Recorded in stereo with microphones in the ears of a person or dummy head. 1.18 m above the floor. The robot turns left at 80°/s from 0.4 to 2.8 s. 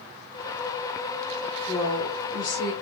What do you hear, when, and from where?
1.7 s a woman speaking: 170° right, 1.1 m; by 2.7 s 105° left, 1.1 m